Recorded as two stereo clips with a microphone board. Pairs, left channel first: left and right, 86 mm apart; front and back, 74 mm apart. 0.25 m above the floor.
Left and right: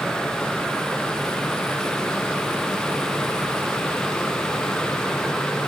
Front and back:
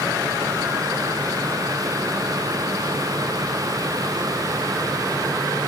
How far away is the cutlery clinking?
No cutlery clinking in this recording.